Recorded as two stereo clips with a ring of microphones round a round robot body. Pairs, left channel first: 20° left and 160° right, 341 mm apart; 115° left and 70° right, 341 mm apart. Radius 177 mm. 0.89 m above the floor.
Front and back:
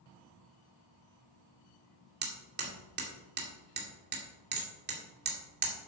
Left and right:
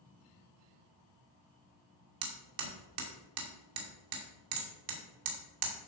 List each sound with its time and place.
2.2 s hammering: 95° right, 2.5 m